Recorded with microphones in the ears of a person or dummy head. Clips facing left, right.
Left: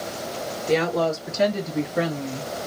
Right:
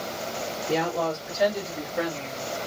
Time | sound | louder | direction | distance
0.7 | a woman speaking | left 5 dB | 75° left (ahead or behind) | 1.6 m